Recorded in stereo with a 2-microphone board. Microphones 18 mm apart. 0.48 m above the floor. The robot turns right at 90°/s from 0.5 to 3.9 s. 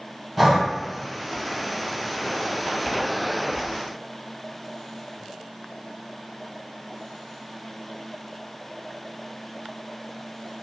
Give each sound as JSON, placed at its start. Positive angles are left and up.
{"t": 0.4, "sound": "breathing", "side_deg": -5, "distance_m": 0.9}